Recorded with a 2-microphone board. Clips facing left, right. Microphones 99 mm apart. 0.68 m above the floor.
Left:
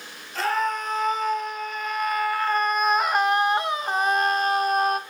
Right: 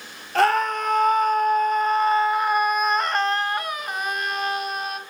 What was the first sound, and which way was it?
A scream, 60° right (ahead or behind).